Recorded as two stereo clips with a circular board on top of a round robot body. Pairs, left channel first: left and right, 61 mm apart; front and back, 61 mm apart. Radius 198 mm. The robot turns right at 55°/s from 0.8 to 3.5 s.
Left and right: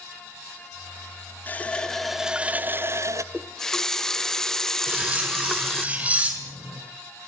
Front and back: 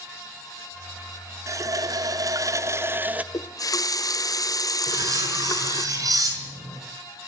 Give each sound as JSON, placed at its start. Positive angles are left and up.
{"t": 1.5, "sound": "a running tap", "azimuth_deg": 145, "distance_m": 1.2}
{"t": 3.3, "sound": "a running tap", "azimuth_deg": 0, "distance_m": 1.2}
{"t": 4.9, "sound": "cutlery clinking", "azimuth_deg": -155, "distance_m": 5.0}